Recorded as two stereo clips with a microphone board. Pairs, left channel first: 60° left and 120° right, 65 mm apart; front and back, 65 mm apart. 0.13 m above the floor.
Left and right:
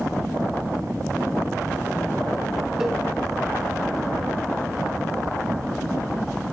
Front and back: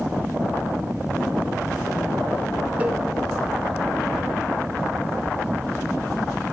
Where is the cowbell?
170° left, 1.6 m.